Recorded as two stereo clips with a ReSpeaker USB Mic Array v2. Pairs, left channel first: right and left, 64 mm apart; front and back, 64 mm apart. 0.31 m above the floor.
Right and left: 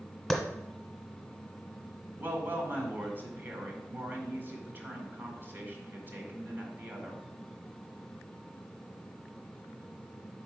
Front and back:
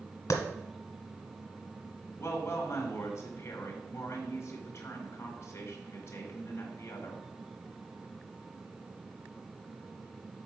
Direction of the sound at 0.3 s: Straight ahead.